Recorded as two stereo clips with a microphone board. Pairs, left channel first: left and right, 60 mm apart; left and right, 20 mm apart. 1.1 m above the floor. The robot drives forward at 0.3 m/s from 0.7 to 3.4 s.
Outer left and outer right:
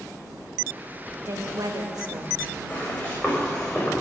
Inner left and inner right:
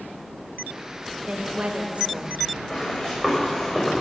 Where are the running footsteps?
25° left (ahead or behind), 6 m; by 3.9 s 20° left (ahead or behind), 6 m.